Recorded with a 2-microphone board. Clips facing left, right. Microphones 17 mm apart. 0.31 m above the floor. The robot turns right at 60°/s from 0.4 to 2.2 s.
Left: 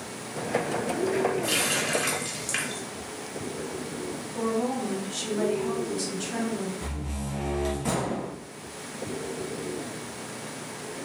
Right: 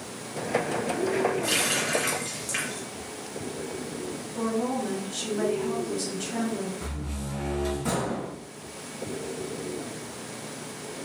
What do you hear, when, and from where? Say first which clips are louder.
1.4 s a running tap: even; 15° right, 1.3 m; by 2.8 s 30° left, 1.3 m
4.3 s a woman speaking: even; 10° left (ahead or behind), 1.5 m
6.8 s a door slam: left 1 dB; 15° left (ahead or behind), 2.0 m